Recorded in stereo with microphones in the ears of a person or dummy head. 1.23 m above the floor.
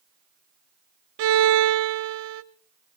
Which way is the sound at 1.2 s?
65° right (ahead or behind).